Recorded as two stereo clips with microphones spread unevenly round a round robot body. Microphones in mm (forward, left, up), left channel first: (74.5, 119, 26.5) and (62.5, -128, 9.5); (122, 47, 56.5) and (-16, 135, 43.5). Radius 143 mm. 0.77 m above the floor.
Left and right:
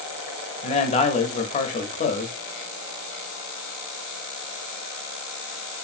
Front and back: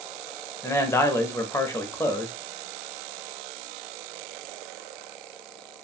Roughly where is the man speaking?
Ahead left.